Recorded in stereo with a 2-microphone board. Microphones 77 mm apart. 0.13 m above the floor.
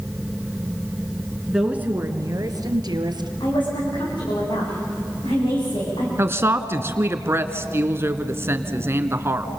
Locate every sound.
1.5 s a woman speaking: 5° right (ahead or behind), 1.4 m; by 3.3 s 65° right (ahead or behind), 2.5 m
3.4 s a woman speaking: 80° left, 9 m
6.2 s a woman speaking: 30° right (ahead or behind), 1.4 m